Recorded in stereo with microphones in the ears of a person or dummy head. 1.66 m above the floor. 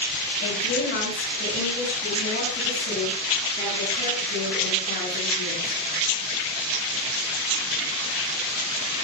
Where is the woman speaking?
50° left (ahead or behind), 8 m; by 5.8 s 40° left (ahead or behind), 11 m.